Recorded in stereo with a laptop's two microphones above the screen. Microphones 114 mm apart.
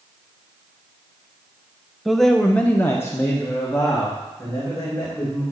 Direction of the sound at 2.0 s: Centre (ahead or behind).